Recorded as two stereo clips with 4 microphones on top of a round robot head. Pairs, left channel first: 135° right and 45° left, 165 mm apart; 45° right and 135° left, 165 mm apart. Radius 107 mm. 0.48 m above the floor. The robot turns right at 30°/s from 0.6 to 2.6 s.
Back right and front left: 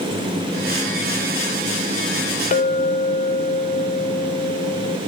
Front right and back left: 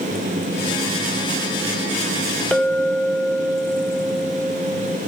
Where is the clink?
125° right, 0.9 m.